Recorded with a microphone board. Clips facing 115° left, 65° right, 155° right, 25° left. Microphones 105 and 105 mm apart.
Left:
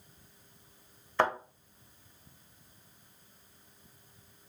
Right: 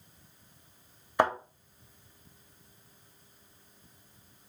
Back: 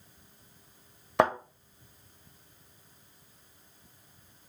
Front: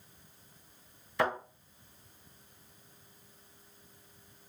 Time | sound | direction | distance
1.2 | a thud | 145° right | 1.5 m